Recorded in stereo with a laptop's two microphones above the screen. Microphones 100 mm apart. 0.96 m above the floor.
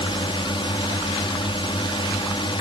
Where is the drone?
60° left (ahead or behind).